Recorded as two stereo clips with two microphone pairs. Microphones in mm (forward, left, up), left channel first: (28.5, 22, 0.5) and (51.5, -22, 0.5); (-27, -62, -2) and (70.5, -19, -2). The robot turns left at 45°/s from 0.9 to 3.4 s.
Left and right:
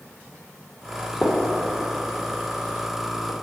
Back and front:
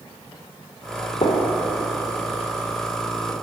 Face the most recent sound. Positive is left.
turn(degrees=90)